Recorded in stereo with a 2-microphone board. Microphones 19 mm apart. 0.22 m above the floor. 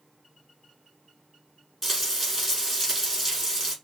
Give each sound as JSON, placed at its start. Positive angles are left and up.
{"t": 1.8, "sound": "frying", "side_deg": -5, "distance_m": 3.5}